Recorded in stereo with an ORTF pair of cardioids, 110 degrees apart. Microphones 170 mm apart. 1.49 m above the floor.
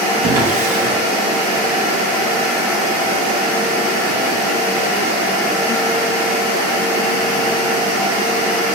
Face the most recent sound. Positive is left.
turn(degrees=-60)